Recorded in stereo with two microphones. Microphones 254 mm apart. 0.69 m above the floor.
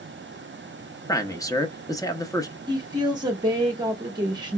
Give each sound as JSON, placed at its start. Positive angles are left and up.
{"t": 1.1, "sound": "a man speaking", "side_deg": 15, "distance_m": 0.8}
{"t": 2.7, "sound": "a woman speaking", "side_deg": -15, "distance_m": 1.3}